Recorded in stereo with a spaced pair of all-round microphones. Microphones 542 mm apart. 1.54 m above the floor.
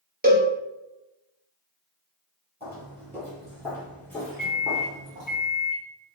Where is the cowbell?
15° right (ahead or behind), 0.6 m.